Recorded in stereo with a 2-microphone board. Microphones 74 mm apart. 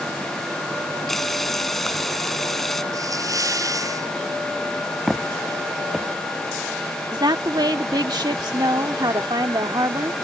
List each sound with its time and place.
1.1 s frying: 5° left (ahead or behind)
2.9 s a hiss: 50° right (ahead or behind)
5.1 s footsteps: centre (ahead or behind)
7.1 s a woman speaking: 75° right (ahead or behind)